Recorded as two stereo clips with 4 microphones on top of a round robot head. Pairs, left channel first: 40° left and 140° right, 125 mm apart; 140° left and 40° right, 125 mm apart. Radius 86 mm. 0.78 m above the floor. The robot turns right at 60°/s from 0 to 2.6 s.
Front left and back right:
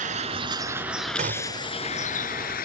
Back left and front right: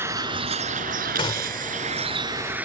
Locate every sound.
0.0 s a vehicle: 115° right; by 2.6 s 40° left
1.2 s a gunshot: 170° right; by 1.7 s 140° right